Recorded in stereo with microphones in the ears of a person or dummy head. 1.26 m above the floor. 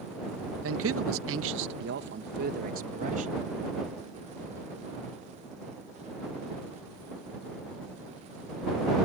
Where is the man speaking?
70° right (ahead or behind); by 3.4 s 45° right (ahead or behind).